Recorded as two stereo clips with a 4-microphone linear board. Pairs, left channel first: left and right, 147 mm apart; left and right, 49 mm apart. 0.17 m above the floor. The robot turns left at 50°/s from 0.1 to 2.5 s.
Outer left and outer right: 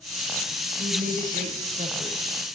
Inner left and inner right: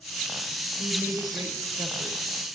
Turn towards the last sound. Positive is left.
turn(degrees=-155)